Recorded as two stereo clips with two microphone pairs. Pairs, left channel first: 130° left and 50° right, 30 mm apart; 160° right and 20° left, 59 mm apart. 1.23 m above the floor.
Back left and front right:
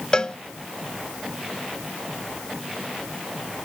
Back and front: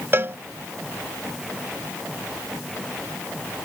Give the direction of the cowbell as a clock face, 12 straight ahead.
10 o'clock.